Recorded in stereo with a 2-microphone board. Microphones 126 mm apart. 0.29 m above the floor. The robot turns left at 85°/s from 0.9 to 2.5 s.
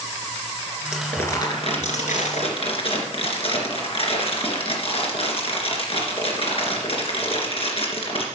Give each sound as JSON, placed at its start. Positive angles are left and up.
{"t": 0.9, "sound": "crumpling", "azimuth_deg": -175, "distance_m": 2.5}